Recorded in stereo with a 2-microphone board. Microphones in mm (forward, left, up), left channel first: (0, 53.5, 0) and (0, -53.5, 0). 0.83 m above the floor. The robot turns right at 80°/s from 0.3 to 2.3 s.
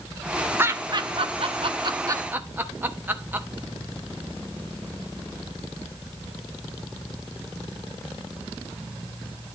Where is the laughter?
20° right (ahead or behind), 0.9 m.